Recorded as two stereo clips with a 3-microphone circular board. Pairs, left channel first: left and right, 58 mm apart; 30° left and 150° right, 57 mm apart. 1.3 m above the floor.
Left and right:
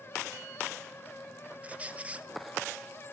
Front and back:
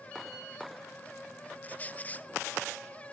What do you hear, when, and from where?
1.6 s a squeak: 25° right, 0.5 m